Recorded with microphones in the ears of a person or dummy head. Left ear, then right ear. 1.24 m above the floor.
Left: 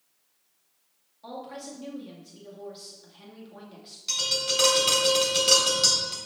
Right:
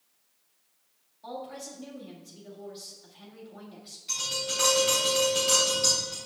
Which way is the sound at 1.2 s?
15° left (ahead or behind).